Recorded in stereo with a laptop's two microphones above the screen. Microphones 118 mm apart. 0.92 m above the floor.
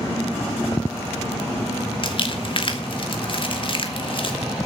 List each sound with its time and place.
2.0 s crumpling: 45° left (ahead or behind), 2.5 m